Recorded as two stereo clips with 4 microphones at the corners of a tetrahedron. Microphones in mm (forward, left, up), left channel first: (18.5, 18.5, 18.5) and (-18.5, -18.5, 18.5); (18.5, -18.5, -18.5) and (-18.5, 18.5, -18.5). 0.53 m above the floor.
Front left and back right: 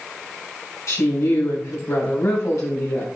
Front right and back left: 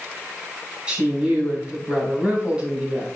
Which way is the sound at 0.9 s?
60° left.